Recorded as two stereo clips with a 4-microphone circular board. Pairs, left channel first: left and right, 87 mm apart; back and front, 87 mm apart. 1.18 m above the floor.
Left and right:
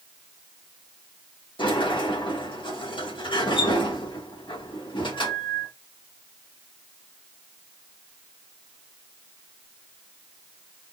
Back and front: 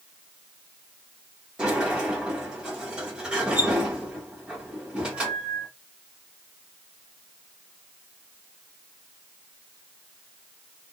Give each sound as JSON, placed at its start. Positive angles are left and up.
{"t": 1.6, "sound": "a sliding door", "azimuth_deg": 80, "distance_m": 1.7}